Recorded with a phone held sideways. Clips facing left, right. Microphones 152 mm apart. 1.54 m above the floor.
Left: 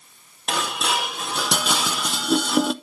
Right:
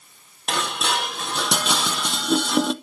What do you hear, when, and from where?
0.5 s dishes clattering: 5° left (ahead or behind), 0.6 m